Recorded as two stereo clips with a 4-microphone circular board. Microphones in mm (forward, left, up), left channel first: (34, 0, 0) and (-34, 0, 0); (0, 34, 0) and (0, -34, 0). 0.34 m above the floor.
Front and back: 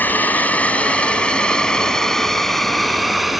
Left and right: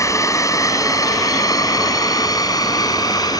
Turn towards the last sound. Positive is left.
turn(degrees=95)